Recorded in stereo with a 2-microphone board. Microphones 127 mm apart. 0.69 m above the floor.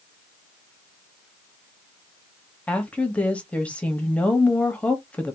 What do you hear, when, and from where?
2.7 s a woman speaking: 10° left (ahead or behind), 1.0 m